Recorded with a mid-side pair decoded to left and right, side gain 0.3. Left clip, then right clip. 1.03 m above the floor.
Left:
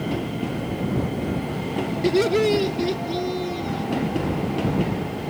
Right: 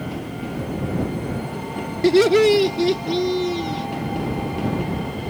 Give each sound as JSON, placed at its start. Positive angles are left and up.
{"t": 2.0, "sound": "laughter", "azimuth_deg": -50}